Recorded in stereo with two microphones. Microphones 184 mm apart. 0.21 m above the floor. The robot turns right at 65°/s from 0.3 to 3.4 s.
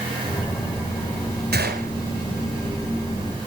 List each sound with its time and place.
1.5 s a gunshot: 65° right (ahead or behind), 2 m; by 1.9 s 55° right (ahead or behind), 2 m